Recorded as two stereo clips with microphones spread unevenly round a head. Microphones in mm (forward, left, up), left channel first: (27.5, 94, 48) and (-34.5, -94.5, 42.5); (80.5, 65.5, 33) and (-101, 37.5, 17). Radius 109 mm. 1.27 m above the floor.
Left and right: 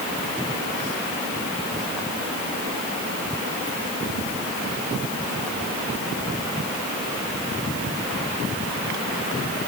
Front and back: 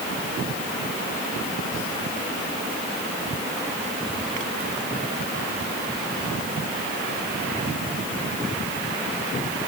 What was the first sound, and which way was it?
Only background noise.